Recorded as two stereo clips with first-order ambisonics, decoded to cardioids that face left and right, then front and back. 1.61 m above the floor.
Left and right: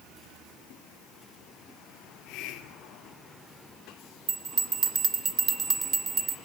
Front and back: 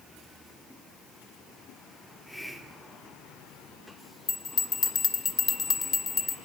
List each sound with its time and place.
2.0 s a hiss: 85° left, 1.9 m
4.3 s a bell: 50° right, 1.3 m